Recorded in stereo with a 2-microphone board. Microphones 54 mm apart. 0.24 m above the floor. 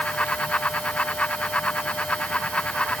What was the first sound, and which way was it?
Only background noise.